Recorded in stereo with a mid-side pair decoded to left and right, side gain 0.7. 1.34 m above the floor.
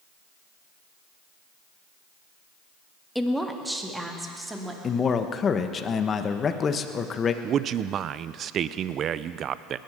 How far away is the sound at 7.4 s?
About 0.5 m.